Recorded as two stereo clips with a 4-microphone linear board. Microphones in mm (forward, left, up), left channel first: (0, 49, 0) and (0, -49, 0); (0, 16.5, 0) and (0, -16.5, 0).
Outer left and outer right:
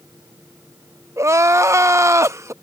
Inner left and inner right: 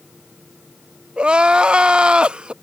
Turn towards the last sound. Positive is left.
turn(degrees=-30)  # may be behind; listen again after turning